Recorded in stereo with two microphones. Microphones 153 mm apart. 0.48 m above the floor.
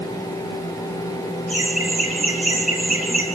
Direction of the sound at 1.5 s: 55° left (ahead or behind).